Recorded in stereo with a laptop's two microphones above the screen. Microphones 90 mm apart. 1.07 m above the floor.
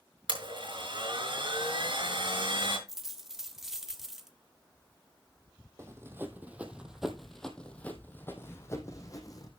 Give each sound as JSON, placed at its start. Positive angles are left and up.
{"t": 0.3, "sound": "a blender", "side_deg": -65, "distance_m": 5.5}
{"t": 2.9, "sound": "a dropped coin", "side_deg": -5, "distance_m": 0.9}
{"t": 5.8, "sound": "running footsteps", "side_deg": -30, "distance_m": 2.0}